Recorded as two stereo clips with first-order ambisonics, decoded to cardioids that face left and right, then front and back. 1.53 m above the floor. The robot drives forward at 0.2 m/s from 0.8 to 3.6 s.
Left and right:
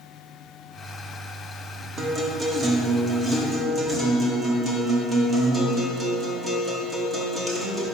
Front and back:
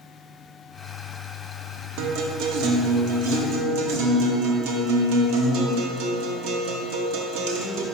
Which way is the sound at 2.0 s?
160° right.